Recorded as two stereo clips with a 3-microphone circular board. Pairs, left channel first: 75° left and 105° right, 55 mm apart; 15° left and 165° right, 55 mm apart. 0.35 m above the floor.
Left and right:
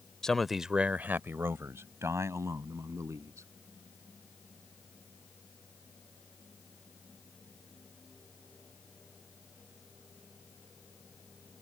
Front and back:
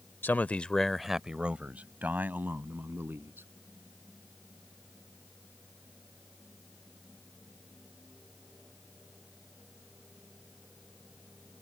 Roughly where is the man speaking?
Ahead.